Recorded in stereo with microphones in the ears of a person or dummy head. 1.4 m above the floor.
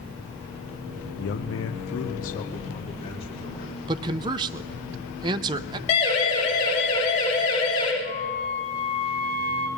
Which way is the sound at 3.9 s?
25° right (ahead or behind).